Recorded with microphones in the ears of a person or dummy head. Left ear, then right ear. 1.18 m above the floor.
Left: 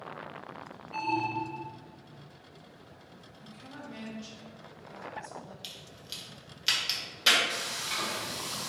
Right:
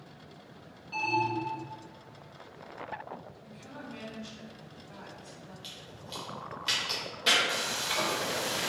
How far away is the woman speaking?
About 1.4 m.